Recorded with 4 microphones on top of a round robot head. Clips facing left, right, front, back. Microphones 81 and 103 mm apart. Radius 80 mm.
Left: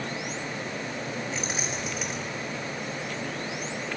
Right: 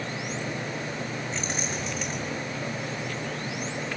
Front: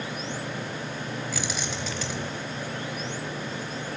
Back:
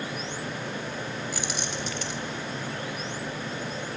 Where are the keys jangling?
5° left, 4 m.